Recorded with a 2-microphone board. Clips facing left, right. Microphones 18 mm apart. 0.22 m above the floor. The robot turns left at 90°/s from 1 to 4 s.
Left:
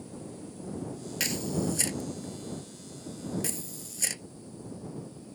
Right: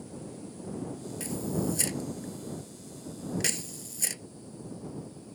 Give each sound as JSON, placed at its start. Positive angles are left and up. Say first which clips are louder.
{"t": 1.2, "sound": "a camera shutter", "louder": "left 2 dB", "side_deg": 60}